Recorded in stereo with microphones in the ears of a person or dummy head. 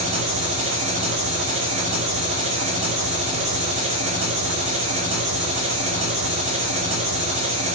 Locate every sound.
0.0 s an engine running: 35° right (ahead or behind), 2 m